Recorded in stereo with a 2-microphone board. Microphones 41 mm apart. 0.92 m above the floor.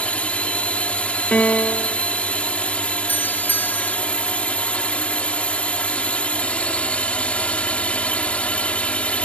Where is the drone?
35° left (ahead or behind).